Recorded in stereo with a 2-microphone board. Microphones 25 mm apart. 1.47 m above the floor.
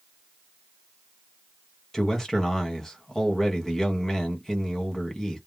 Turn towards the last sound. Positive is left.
turn(degrees=15)  # may be behind; listen again after turning